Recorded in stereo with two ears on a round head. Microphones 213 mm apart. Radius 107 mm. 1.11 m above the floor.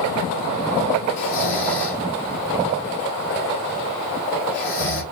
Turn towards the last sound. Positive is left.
turn(degrees=35)  # may be behind; listen again after turning